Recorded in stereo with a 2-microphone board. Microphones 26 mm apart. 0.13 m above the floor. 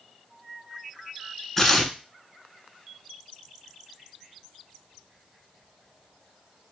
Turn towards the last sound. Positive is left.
turn(degrees=10)  # may be behind; listen again after turning